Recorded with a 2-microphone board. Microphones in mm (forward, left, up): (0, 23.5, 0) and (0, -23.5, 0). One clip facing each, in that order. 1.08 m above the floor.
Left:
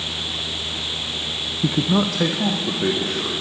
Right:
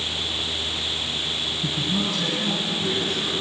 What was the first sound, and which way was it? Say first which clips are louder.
A man speaking: left 8 dB; 55° left (ahead or behind).